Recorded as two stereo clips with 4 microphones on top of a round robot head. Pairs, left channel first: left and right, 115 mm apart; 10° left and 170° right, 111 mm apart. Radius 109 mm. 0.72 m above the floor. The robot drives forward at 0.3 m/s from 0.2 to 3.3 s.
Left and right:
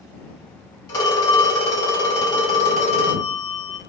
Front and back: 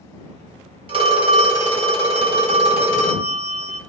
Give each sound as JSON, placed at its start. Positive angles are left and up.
{"t": 0.9, "sound": "a phone ringing", "azimuth_deg": 150, "distance_m": 1.3}